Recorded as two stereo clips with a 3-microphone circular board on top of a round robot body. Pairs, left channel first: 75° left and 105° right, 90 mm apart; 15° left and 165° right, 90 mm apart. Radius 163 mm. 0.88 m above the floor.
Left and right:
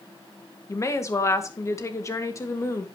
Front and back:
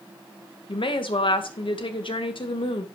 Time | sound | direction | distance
0.7 | a woman speaking | 20° left | 1.9 m